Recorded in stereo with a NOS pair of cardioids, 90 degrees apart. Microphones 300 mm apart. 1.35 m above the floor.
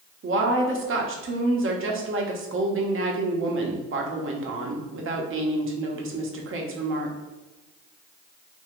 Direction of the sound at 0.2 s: 45° right.